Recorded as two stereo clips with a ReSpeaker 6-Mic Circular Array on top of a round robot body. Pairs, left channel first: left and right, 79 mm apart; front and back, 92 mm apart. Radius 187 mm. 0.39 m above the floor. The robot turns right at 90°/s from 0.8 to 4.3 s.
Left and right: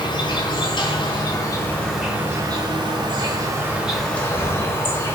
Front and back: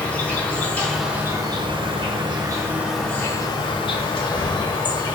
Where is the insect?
75° left, 1.1 m; by 5.2 s 30° left, 1.1 m.